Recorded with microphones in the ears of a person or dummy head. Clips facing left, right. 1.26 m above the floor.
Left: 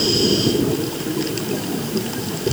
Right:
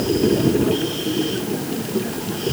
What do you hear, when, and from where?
Only background noise.